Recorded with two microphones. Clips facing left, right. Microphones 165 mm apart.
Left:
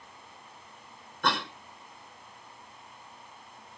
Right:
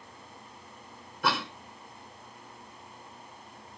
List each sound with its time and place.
1.2 s a cough: 5° right (ahead or behind), 1.3 m